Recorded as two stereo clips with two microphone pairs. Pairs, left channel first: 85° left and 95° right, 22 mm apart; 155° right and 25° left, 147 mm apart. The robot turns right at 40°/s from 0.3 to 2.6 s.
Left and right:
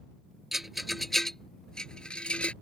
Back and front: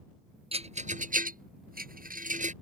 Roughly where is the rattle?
Ahead right.